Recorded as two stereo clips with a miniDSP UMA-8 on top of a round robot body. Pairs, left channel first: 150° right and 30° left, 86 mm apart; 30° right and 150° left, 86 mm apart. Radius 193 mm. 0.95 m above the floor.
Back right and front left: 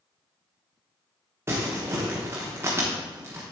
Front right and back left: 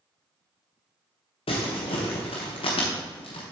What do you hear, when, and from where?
1.5 s crumpling: 35° right, 0.9 m